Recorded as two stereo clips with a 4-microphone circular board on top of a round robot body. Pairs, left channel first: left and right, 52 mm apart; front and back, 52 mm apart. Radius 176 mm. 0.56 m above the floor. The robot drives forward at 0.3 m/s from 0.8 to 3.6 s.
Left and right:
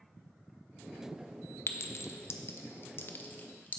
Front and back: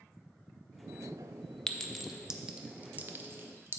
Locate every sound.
1.7 s a clink: 75° left, 0.5 m; by 3.8 s 140° left, 0.7 m